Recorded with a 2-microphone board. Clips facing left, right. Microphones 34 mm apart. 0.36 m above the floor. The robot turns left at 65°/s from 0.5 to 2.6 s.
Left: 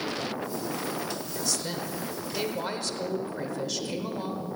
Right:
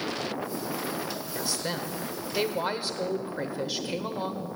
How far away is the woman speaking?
About 1.1 m.